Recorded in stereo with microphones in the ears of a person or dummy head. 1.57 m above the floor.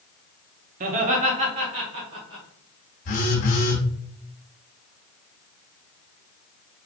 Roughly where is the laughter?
Right.